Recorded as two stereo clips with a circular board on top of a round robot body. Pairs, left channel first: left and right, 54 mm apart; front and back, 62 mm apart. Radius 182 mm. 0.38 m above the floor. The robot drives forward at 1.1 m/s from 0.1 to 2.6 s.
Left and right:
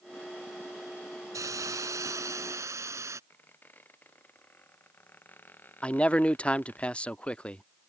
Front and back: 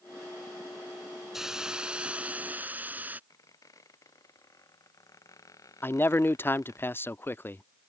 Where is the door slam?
No door slam in this recording.